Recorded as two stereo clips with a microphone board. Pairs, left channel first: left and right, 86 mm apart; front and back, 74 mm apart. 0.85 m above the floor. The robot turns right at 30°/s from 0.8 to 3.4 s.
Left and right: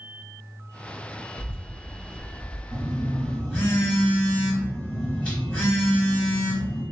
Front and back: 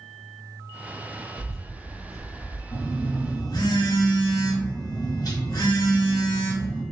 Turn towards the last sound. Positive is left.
turn(degrees=20)